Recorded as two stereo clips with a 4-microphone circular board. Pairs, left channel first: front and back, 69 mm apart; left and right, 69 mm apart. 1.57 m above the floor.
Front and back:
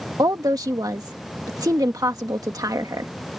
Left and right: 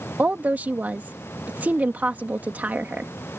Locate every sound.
0.2 s a woman speaking: 155° right